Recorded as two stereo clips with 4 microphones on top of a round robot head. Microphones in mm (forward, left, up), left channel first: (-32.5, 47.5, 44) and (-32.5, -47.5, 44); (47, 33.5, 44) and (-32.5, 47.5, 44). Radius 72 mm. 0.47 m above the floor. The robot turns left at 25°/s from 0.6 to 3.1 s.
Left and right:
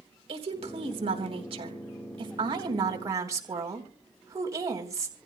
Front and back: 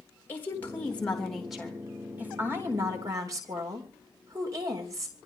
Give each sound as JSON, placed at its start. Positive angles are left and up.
{"t": 0.3, "sound": "a woman speaking", "azimuth_deg": -80, "distance_m": 3.5}